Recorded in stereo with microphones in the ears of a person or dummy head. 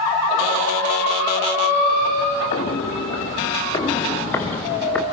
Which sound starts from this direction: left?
Footsteps, at 2.5 s.